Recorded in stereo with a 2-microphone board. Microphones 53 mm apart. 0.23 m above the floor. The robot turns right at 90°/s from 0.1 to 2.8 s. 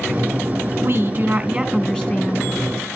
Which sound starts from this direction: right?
A woman speaking, at 0.8 s.